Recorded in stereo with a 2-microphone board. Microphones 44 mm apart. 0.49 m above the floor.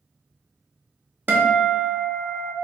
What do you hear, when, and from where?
1.3 s a guitar: 55° right (ahead or behind), 0.6 m